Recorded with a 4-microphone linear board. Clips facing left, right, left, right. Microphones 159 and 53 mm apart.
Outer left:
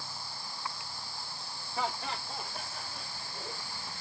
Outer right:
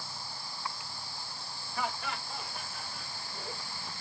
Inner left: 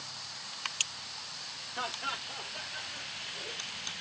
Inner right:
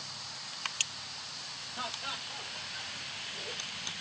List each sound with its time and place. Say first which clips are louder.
1.8 s laughter: outer left 1 dB, inner left 3 dB; 25° left (ahead or behind), 1.2 m; by 3.9 s 35° left (ahead or behind), 1.8 m